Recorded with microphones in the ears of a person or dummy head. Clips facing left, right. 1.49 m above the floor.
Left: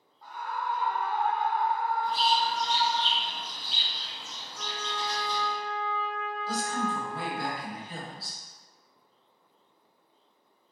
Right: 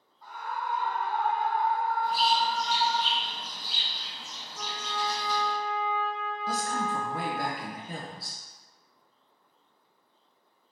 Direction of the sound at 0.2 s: 70° right (ahead or behind).